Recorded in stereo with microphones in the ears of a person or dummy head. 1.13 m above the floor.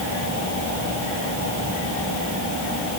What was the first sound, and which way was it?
Only background noise.